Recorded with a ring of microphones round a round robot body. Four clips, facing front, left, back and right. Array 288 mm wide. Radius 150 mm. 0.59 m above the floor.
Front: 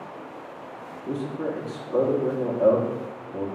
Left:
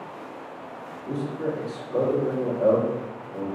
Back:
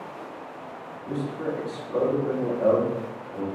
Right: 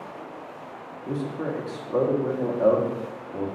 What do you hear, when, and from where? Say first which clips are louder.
1.1 s a man speaking: left 1 dB, even; 55° right, 1.1 m